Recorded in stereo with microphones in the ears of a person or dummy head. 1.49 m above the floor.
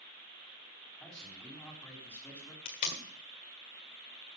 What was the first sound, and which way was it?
A man speaking, centre (ahead or behind).